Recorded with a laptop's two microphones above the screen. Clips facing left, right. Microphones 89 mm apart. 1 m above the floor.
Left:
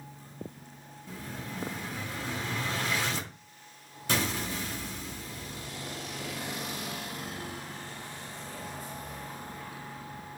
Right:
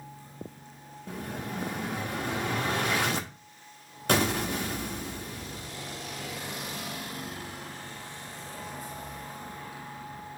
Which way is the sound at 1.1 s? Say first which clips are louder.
Right 4 dB; 60° right (ahead or behind).